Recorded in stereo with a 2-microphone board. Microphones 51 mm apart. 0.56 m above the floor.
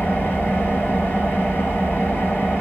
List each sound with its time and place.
0.0 s an engine running: 35° left (ahead or behind), 8 m